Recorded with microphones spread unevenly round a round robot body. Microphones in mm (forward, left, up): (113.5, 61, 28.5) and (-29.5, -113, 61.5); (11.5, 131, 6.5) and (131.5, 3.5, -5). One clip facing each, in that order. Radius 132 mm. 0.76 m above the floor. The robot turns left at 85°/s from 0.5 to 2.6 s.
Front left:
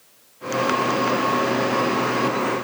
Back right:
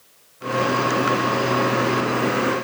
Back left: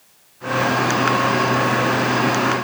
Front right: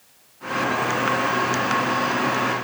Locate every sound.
Only background noise.